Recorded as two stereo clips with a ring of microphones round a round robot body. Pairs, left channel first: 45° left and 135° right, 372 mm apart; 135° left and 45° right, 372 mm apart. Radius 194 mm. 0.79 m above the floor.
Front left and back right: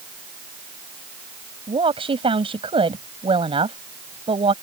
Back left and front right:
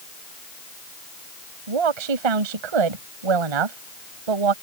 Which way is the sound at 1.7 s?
60° right.